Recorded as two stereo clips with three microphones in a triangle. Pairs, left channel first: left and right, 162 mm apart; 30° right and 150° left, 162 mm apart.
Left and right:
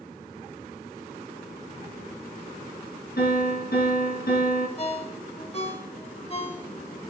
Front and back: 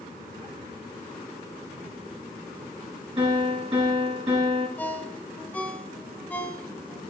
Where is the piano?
90° left, 4.5 m.